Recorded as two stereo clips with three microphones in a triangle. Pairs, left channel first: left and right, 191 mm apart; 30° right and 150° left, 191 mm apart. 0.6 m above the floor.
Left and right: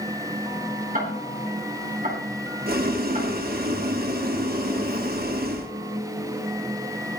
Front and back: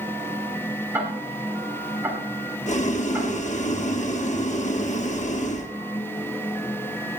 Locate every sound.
0.9 s ticking: 130° right, 3.5 m
2.7 s boiling: 70° right, 1.2 m